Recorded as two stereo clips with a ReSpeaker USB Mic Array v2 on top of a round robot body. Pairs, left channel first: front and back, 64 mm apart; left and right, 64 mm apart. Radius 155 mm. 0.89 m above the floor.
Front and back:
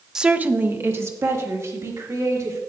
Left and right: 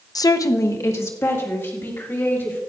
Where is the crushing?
No crushing in this recording.